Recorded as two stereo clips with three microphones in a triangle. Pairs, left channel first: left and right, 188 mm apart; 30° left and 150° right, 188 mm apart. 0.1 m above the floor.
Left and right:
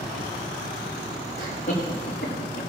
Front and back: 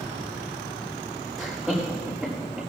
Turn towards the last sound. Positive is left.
turn(degrees=125)